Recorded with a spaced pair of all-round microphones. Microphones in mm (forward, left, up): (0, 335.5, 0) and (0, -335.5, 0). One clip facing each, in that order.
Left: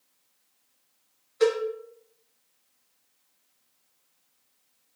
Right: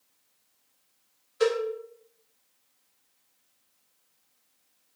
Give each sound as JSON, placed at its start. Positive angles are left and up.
{"t": 1.4, "sound": "a cowbell", "side_deg": -45, "distance_m": 1.2}